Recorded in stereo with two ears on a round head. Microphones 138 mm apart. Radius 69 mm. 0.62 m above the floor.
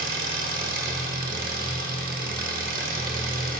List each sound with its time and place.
0.0 s an engine running: 60° right (ahead or behind), 0.9 m